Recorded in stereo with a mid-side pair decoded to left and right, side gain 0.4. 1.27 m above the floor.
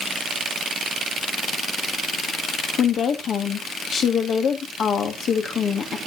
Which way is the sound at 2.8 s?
60° left.